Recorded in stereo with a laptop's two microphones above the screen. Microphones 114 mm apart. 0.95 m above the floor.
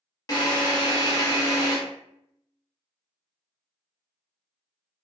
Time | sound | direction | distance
0.3 | a drill | 30° left (ahead or behind) | 0.8 m